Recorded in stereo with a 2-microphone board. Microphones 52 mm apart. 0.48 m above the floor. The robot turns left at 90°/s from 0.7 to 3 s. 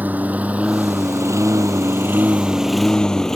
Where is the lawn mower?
35° right (ahead or behind); by 3.4 s 10° left (ahead or behind).